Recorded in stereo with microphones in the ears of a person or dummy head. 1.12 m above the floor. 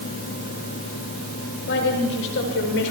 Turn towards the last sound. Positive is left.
turn(degrees=70)  # may be behind; listen again after turning